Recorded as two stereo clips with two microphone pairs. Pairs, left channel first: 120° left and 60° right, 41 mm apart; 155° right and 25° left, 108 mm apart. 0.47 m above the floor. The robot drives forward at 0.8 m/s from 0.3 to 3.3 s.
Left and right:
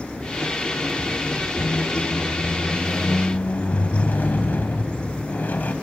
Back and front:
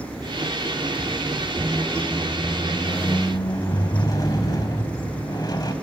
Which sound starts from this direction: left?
A squeak, at 1.6 s.